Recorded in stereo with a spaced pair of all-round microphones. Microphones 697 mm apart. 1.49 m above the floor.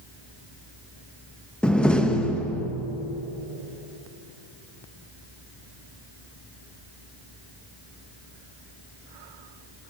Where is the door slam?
Centre (ahead or behind), 0.8 m.